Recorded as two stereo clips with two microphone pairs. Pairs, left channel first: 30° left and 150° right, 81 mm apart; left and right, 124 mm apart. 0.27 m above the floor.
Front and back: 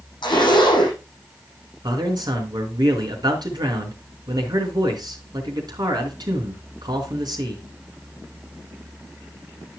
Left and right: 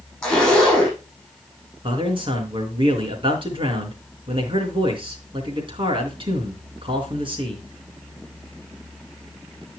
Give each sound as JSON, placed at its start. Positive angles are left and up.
{"t": 0.2, "sound": "a zipper", "azimuth_deg": 5, "distance_m": 8.0}
{"t": 1.8, "sound": "a man speaking", "azimuth_deg": -130, "distance_m": 4.5}